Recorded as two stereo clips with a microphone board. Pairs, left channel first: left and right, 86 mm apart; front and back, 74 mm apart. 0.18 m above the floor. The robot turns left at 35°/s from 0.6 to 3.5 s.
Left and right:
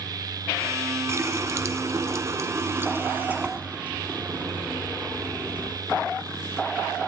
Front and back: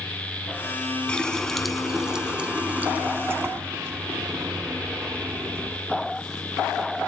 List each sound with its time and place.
1.1 s a running tap: 70° right, 0.8 m; by 5.8 s 155° right, 0.8 m